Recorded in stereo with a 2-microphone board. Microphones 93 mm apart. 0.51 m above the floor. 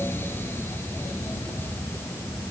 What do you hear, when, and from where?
Only background noise.